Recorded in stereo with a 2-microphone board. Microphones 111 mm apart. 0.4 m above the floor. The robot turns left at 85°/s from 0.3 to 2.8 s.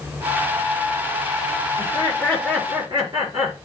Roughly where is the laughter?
Ahead left.